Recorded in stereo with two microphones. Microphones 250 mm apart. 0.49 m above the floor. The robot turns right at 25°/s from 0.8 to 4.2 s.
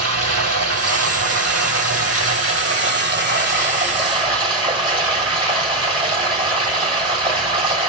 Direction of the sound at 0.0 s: 105° right.